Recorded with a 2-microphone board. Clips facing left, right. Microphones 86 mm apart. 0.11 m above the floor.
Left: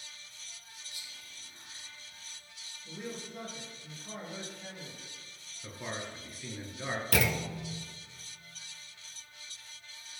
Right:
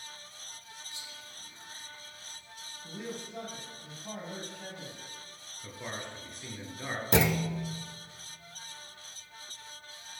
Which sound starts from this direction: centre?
A man speaking, at 5.6 s.